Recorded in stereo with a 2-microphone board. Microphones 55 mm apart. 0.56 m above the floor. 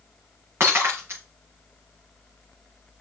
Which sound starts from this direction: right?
Breaking glass, at 0.6 s.